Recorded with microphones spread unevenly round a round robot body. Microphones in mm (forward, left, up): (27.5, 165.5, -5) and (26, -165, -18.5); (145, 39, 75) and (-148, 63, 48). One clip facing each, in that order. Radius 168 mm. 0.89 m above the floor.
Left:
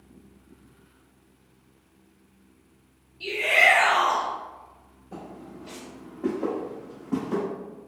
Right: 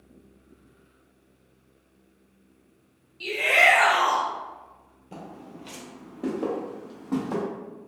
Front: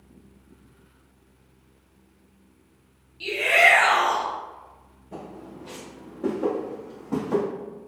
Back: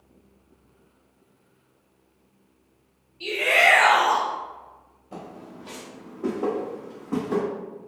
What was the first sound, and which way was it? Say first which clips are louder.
A shout: right 1 dB, even; 30° right.